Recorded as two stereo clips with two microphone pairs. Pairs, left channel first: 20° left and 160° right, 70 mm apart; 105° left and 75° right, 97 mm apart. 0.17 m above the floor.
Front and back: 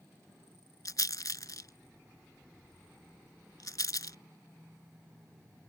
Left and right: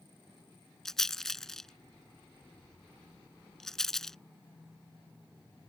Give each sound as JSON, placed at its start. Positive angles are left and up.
{"t": 0.8, "sound": "a rattle", "azimuth_deg": 20}